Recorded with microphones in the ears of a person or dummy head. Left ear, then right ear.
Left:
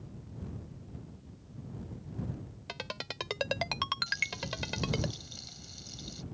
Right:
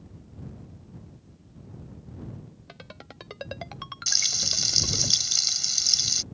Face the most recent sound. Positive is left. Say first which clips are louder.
# right 10 dB
turn(degrees=-65)  # may be behind; listen again after turning